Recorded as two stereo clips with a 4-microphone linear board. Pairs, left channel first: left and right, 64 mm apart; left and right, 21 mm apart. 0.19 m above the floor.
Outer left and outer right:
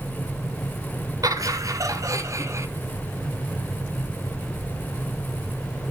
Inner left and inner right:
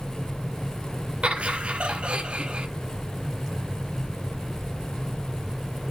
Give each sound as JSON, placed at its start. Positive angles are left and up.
{"t": 1.2, "sound": "laughter", "side_deg": -65, "distance_m": 2.0}